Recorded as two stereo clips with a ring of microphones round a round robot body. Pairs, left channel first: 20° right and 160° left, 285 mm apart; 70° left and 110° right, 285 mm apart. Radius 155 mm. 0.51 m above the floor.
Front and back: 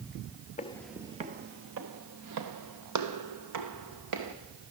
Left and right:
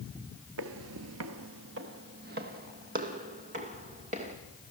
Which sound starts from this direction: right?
Footsteps, at 0.6 s.